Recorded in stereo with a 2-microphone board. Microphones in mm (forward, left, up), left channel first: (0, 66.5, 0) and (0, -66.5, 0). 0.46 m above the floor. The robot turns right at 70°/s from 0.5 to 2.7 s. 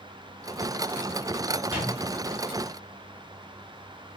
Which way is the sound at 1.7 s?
20° right (ahead or behind).